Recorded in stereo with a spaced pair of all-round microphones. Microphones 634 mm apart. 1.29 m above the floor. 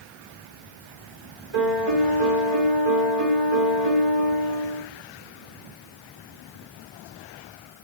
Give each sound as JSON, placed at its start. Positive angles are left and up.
{"t": 1.5, "sound": "a piano", "side_deg": -40, "distance_m": 1.4}